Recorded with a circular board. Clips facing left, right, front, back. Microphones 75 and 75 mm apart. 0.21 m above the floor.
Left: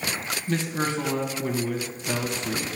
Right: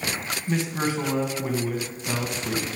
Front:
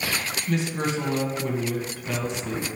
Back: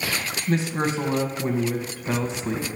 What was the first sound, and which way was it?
A man speaking, 155° right.